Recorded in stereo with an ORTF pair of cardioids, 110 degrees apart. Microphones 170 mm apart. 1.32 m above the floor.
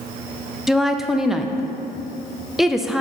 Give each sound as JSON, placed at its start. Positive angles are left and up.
{"t": 0.7, "sound": "a woman speaking", "azimuth_deg": 0, "distance_m": 0.7}